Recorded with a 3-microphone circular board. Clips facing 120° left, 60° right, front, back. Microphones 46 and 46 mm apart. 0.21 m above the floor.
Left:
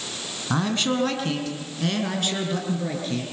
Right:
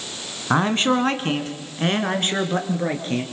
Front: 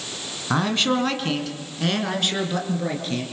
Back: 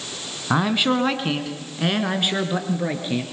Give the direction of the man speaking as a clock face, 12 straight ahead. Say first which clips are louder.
Right 5 dB, back 2 dB; 3 o'clock.